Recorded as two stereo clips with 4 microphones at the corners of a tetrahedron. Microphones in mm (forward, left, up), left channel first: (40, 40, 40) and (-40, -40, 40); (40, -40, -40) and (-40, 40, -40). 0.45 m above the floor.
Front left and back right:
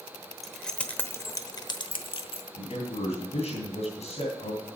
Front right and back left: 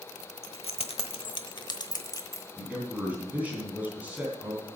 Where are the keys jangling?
45° right, 1.0 m; by 2.5 s 20° left, 1.1 m.